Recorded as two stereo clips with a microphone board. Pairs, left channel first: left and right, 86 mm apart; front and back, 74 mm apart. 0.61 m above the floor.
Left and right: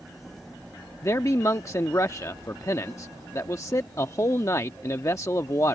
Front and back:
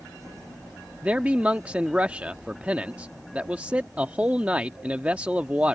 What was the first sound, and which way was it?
A man speaking, 120° left.